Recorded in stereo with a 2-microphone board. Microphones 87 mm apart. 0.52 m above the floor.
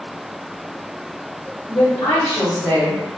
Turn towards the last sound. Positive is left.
turn(degrees=45)  # may be behind; listen again after turning